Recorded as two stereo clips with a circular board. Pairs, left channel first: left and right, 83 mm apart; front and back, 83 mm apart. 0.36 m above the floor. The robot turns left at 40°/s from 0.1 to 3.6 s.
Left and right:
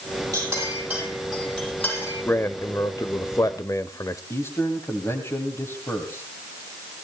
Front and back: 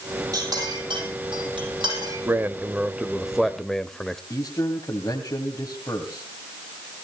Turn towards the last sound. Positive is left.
turn(degrees=45)